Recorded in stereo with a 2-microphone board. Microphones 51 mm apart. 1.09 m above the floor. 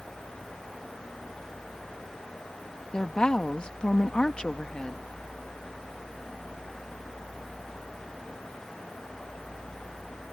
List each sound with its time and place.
2.9 s a woman speaking: 15° left (ahead or behind)